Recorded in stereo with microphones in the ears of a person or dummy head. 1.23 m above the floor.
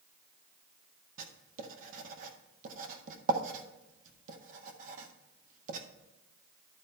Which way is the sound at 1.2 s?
50° right (ahead or behind).